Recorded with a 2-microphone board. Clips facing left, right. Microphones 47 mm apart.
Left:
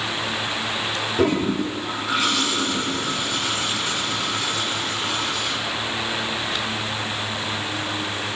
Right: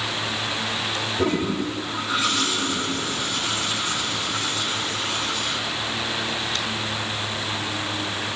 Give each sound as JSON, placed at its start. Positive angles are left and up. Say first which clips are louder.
{"t": 1.2, "sound": "a toilet flushing", "louder": "left 3 dB", "side_deg": 65, "distance_m": 7.0}